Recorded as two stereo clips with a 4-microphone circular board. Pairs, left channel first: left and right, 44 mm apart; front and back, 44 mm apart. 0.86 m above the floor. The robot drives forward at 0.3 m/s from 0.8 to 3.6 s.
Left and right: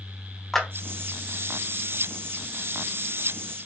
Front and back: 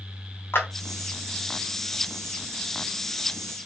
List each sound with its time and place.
0.5 s a clap: 10° left, 1.1 m